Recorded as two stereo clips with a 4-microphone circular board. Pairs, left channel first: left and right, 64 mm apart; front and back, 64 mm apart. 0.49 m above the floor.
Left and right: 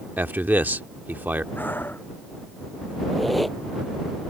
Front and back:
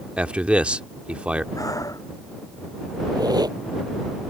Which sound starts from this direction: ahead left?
Breathing, at 1.6 s.